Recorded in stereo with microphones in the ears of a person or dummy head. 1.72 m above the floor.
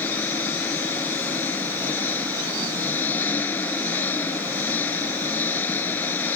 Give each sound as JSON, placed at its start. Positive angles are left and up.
{"t": 0.0, "sound": "an engine running", "side_deg": 10}